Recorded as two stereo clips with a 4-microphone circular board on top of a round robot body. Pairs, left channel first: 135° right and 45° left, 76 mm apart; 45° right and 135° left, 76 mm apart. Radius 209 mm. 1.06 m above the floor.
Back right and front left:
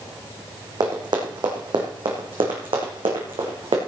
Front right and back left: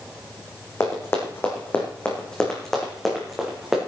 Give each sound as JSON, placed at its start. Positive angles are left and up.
{"t": 0.8, "sound": "running footsteps", "azimuth_deg": 10, "distance_m": 2.5}